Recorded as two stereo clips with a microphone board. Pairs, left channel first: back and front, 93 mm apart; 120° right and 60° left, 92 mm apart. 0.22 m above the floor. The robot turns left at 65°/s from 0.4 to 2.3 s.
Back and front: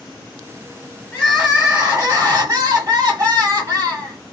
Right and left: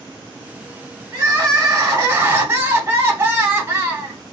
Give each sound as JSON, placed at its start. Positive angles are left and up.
{"t": 1.1, "sound": "crying", "azimuth_deg": 95, "distance_m": 1.9}